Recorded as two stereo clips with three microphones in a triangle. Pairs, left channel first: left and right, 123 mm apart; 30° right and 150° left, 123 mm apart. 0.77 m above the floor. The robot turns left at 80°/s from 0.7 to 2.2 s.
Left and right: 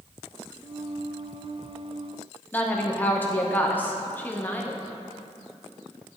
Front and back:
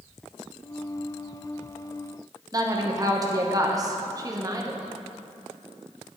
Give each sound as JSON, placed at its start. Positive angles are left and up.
{"t": 2.5, "sound": "a woman speaking", "azimuth_deg": 150, "distance_m": 0.8}